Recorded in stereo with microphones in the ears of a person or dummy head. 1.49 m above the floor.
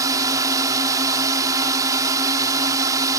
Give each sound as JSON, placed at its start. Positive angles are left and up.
{"t": 0.0, "sound": "a drone", "side_deg": -15}